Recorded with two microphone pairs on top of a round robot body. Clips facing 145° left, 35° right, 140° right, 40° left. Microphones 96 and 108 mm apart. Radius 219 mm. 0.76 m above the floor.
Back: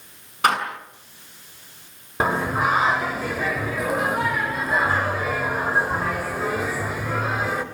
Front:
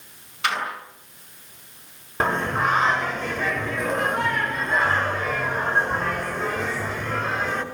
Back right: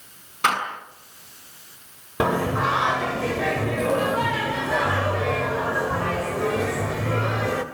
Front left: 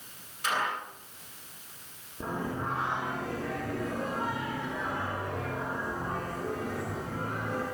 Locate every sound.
0.4 s a door slam: 165° right, 6 m
2.2 s singing: 130° right, 2.5 m